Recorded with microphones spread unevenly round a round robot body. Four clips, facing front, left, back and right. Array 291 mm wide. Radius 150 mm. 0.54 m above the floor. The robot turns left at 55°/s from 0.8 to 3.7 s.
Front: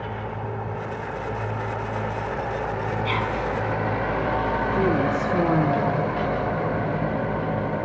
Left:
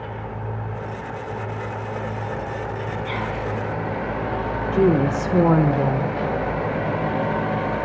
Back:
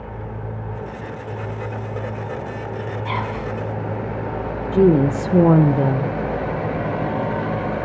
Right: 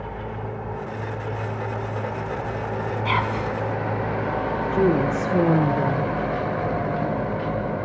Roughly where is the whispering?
Right.